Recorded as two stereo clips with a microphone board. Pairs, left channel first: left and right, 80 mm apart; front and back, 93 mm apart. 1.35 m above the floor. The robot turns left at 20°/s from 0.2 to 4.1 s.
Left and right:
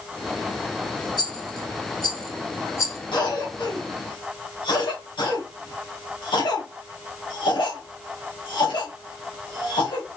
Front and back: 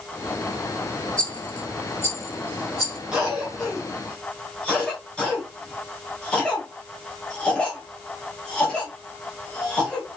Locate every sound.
1.2 s a rattle: 75° left, 2 m; by 3.0 s 40° left, 2 m
3.1 s a cough: 100° left, 1.6 m; by 10.2 s 80° left, 1.6 m